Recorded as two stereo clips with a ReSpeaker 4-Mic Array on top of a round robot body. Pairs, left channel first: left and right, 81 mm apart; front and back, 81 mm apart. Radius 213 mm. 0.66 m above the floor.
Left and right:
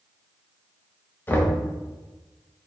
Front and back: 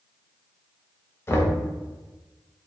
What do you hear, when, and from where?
1.3 s knocking: 40° left, 0.8 m